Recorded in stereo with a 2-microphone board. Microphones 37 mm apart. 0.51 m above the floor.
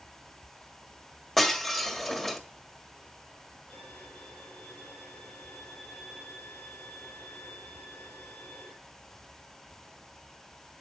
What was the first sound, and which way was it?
Breaking glass, 10° left (ahead or behind).